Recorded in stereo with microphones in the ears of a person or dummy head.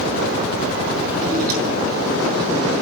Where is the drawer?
50° right (ahead or behind), 4 m.